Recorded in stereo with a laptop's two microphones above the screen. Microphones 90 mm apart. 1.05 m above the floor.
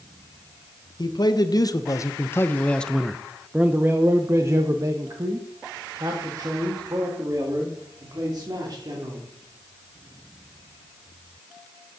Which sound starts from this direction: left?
A man speaking, at 1.0 s.